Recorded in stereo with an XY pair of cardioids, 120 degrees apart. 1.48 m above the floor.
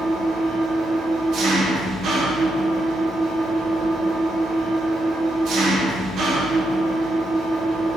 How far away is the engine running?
About 0.8 m.